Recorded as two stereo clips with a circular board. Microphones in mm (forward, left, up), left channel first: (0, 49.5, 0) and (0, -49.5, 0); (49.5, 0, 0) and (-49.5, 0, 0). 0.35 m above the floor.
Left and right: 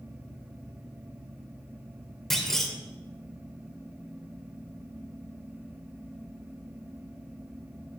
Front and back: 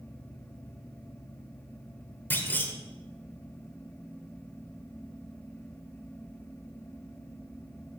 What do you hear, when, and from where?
2.3 s a clunk: 10° left, 1.3 m